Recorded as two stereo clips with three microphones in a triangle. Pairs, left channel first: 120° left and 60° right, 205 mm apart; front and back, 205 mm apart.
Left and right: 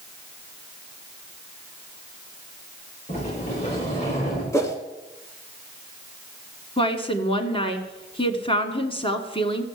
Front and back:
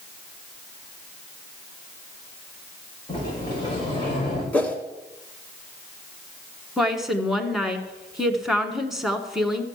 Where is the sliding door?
65° left, 7.5 m.